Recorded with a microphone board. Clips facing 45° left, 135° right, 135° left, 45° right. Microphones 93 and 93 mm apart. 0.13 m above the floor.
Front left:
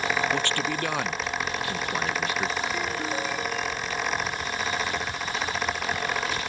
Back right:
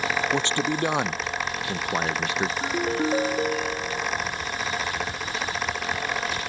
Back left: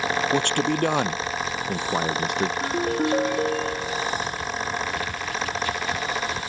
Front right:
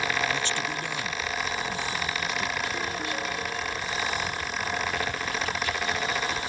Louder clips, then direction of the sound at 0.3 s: Back right 2 dB, back left 8 dB; 155° left.